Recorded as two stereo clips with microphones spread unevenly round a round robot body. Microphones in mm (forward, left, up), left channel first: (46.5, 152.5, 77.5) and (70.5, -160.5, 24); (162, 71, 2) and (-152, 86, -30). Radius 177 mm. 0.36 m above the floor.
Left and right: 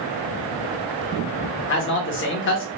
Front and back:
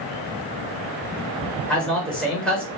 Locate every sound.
1.7 s a man speaking: 95° left, 0.9 m